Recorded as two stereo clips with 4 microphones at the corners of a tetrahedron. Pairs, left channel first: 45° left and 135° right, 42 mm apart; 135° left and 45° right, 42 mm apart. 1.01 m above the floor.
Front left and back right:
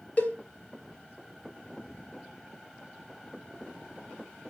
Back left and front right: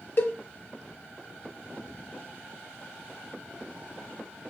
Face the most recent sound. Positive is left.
turn(degrees=100)